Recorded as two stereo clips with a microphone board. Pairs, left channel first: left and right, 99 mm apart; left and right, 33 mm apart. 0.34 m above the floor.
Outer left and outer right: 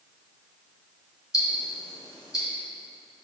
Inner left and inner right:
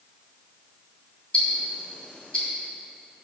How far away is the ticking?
About 2 m.